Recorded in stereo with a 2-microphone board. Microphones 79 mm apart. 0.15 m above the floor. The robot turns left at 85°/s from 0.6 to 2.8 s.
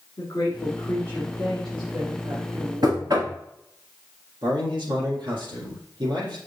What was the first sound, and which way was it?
A woman speaking, 95° left.